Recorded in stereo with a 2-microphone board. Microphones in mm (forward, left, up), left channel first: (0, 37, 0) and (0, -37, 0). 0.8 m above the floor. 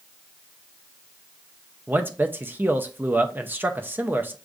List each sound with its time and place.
1.9 s a man speaking: 25° right (ahead or behind), 0.5 m